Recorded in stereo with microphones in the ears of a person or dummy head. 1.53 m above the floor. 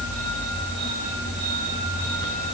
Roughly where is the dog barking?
I don't hear a dog barking.